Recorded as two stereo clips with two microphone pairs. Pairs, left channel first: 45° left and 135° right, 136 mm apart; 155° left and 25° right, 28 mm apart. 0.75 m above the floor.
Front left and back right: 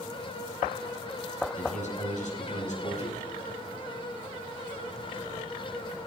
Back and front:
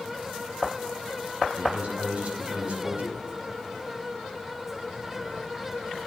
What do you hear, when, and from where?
1.6 s a man speaking: 15° left, 7 m